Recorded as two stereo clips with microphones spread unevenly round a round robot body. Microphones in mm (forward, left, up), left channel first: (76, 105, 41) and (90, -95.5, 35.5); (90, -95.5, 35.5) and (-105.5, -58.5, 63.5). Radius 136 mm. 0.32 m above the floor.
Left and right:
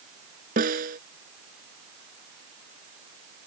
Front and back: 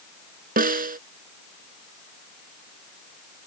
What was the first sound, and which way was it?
A snare drum, 145° right.